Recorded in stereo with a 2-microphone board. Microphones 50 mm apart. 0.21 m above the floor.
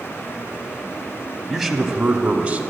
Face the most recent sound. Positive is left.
turn(degrees=-25)  # may be behind; listen again after turning